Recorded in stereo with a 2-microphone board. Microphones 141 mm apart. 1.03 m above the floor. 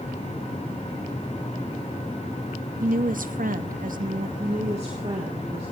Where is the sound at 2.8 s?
75° right (ahead or behind), 1.0 m.